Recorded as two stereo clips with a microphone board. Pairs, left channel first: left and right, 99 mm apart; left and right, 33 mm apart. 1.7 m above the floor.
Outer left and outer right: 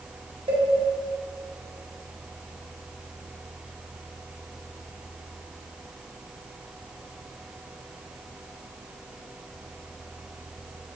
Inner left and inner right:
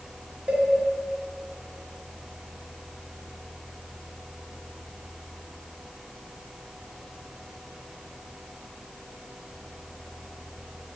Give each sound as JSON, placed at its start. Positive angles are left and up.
{"t": 0.5, "sound": "a cowbell", "side_deg": -60, "distance_m": 1.6}